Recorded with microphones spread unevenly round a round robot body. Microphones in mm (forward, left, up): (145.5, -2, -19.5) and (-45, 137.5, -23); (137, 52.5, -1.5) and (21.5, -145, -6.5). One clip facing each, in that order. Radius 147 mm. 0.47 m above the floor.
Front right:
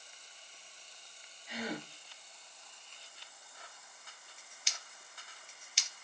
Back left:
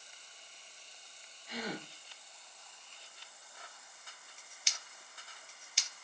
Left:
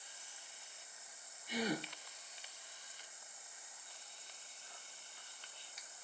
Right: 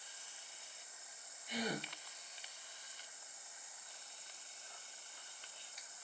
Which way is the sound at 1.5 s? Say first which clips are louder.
Front right 1 dB, left 3 dB; 95° left.